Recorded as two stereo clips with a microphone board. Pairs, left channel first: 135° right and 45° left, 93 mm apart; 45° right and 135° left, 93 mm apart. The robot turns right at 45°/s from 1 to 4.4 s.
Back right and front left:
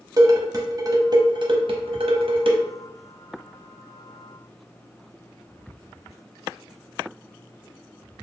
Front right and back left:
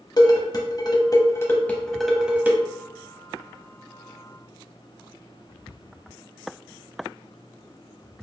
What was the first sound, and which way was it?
Dishes clattering, straight ahead.